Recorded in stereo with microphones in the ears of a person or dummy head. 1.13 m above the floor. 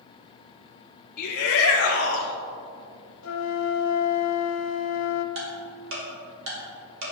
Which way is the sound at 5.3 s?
65° right (ahead or behind).